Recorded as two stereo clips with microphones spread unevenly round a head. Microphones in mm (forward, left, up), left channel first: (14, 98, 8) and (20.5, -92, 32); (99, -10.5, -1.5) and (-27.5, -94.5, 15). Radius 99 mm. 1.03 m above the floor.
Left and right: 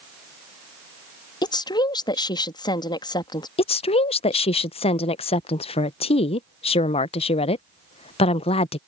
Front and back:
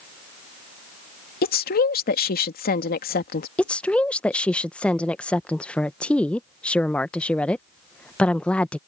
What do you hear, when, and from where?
1.4 s a woman speaking: 25° left
3.6 s a woman speaking: 105° left